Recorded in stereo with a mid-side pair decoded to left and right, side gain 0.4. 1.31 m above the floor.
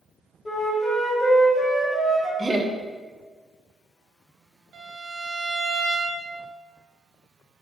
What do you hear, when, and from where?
0.5 s a flute: 40° left, 1.1 m
2.4 s laughter: 30° right, 0.5 m
4.7 s a violin: 70° right, 0.7 m